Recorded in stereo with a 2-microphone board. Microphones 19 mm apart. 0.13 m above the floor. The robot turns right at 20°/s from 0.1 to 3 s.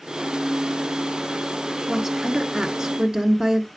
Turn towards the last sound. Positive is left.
turn(degrees=-35)  # may be behind; listen again after turning